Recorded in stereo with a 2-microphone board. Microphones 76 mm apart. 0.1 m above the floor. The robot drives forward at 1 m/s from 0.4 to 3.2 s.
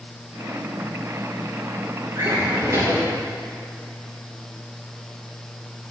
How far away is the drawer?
About 3 m.